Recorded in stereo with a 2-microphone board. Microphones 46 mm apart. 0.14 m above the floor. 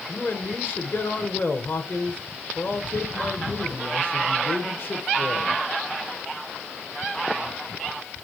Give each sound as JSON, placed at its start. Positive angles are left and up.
{"t": 0.1, "sound": "a man speaking", "side_deg": 50, "distance_m": 1.6}